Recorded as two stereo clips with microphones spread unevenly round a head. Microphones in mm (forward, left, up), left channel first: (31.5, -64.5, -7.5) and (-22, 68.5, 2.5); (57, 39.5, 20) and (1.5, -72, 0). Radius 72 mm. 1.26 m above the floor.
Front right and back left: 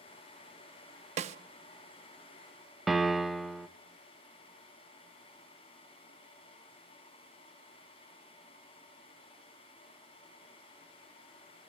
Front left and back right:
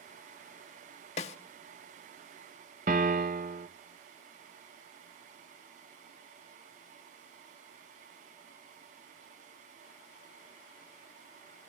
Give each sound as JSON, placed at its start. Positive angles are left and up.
{"t": 1.2, "sound": "a snare drum", "azimuth_deg": 80, "distance_m": 0.8}
{"t": 2.9, "sound": "a piano", "azimuth_deg": -160, "distance_m": 0.5}